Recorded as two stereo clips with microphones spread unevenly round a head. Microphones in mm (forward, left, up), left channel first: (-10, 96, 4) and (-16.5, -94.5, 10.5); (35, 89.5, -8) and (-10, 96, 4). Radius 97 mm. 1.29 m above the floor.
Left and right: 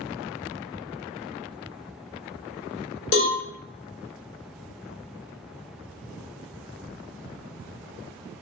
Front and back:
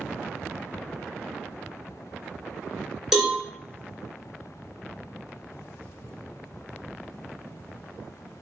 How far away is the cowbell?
About 1.7 m.